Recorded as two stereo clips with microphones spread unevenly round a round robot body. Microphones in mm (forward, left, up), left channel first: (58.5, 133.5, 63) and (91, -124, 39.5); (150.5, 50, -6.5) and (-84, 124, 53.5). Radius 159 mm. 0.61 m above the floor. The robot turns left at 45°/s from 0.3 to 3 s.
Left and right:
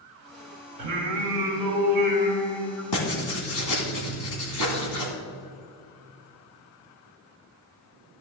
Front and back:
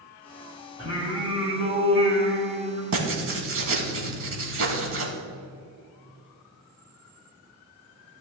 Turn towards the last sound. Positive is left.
turn(degrees=130)